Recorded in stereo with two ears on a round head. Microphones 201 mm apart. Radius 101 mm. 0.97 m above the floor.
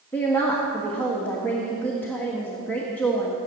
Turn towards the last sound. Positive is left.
turn(degrees=10)  # may be behind; listen again after turning